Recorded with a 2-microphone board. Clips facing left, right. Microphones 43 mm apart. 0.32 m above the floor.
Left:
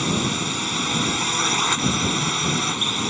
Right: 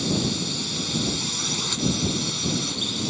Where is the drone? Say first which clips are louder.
Left 3 dB; 45° left (ahead or behind).